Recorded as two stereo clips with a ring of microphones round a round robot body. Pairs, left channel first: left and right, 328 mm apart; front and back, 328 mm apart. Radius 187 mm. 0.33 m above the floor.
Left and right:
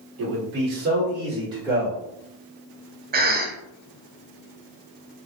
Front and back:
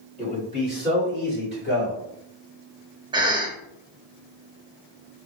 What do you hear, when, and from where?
0.2 s a man speaking: 65° right, 1.9 m; by 2.0 s straight ahead, 1.5 m
3.1 s a cough: 115° right, 0.9 m